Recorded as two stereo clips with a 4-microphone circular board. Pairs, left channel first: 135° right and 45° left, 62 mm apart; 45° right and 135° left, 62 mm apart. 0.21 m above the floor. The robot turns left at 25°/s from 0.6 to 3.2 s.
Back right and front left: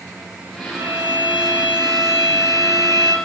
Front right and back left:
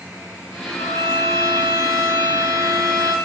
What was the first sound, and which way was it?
A violin, 5° right.